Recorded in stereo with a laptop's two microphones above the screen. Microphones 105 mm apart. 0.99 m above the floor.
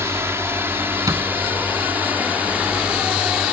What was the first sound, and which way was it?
A drone, 25° right (ahead or behind).